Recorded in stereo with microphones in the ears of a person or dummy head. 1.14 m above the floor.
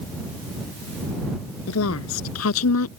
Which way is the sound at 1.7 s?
85° left.